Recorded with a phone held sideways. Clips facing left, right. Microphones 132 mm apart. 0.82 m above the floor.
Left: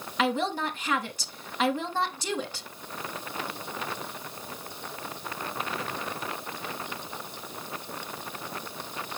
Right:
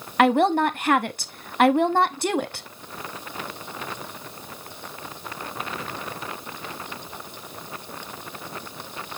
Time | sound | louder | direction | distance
0.2 | a woman speaking | right 9 dB | 60° right (ahead or behind) | 0.9 m